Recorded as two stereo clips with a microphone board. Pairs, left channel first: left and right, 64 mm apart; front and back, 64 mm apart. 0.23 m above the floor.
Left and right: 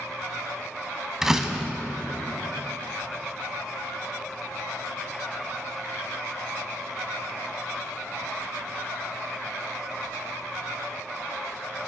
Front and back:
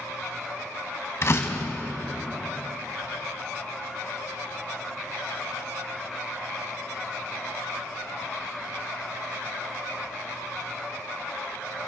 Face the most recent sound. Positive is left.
turn(degrees=-10)